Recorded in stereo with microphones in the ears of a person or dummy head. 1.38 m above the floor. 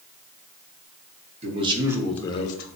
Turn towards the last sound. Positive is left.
turn(degrees=55)  # may be behind; listen again after turning